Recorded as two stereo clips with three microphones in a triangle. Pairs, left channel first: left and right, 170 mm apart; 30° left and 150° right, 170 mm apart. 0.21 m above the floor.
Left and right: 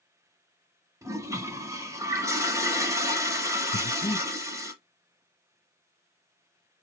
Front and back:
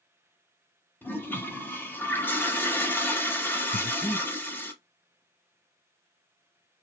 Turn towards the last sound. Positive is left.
turn(degrees=65)